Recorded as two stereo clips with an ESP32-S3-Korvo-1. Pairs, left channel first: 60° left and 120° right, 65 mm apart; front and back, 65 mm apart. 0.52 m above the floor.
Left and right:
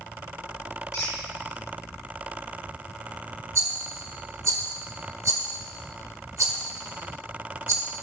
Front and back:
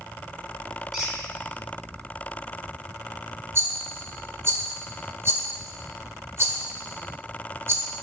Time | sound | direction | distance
0.9 | a squeak | 95° left | 2.5 m
3.5 | a rattle | 140° right | 1.4 m